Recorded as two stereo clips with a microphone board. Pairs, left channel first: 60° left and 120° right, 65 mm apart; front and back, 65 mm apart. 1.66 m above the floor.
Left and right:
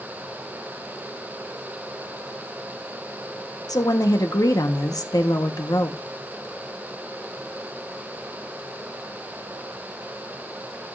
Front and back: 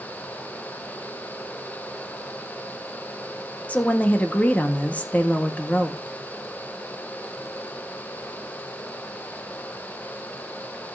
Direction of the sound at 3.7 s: 70° left.